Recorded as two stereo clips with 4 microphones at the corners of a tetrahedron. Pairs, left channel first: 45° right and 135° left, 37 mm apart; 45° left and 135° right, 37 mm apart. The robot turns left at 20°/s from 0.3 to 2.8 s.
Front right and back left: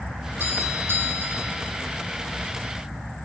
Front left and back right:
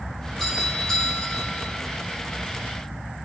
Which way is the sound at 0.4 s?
130° left.